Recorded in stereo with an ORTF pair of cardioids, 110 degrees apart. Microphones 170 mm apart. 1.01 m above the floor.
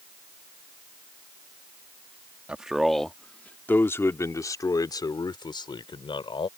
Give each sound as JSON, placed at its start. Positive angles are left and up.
{"t": 2.5, "sound": "a man speaking", "azimuth_deg": -5}